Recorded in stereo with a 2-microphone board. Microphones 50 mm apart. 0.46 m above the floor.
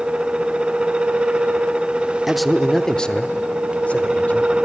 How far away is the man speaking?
About 0.7 m.